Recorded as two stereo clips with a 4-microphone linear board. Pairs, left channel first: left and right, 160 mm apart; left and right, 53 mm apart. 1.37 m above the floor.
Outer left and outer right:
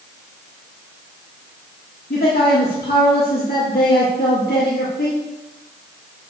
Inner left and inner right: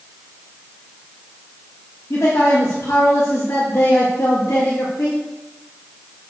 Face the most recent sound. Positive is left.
turn(degrees=65)  # may be behind; listen again after turning